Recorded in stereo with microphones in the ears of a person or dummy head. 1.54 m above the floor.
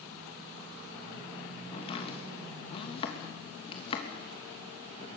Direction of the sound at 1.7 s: 30° left (ahead or behind).